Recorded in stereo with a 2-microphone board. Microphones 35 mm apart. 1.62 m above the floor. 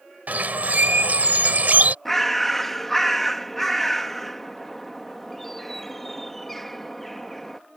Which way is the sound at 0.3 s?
55° right (ahead or behind).